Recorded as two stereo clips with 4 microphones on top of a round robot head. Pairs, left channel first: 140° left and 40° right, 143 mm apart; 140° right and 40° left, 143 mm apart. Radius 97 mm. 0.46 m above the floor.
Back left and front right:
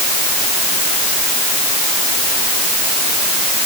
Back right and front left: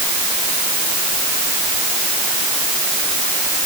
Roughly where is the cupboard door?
No cupboard door in this recording.